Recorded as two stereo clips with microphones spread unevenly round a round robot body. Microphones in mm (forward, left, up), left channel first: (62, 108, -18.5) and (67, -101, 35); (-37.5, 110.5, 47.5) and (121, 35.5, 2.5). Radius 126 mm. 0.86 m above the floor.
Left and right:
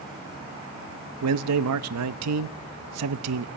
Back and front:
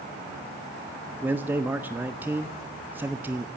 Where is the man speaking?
100° right, 0.8 m.